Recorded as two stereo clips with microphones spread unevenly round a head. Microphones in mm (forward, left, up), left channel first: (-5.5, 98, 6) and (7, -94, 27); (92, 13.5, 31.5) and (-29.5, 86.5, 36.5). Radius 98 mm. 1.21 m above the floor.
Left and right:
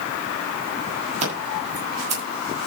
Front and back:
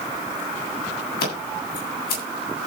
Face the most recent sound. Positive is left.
turn(degrees=-30)